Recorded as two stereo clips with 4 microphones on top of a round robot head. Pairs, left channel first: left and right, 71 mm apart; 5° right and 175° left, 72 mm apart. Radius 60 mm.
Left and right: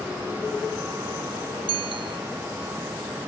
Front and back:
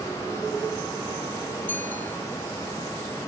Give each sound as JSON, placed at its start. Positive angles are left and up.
{"t": 1.7, "sound": "a bicycle bell", "azimuth_deg": -80}